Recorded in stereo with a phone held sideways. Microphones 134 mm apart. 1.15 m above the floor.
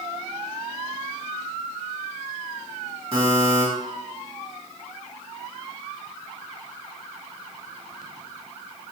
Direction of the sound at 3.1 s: 45° right (ahead or behind).